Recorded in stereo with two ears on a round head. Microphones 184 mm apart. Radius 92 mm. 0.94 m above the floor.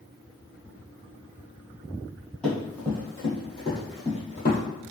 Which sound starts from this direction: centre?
Running footsteps, at 2.4 s.